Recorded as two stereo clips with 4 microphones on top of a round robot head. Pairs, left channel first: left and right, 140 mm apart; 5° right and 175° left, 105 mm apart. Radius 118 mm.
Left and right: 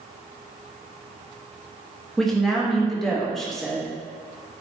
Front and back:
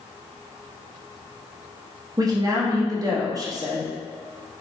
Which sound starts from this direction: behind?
A woman speaking, at 2.2 s.